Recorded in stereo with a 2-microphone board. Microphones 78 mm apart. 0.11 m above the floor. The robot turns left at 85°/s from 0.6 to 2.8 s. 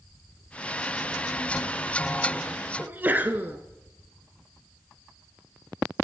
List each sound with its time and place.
2.8 s a sneeze: 25° right (ahead or behind), 1.3 m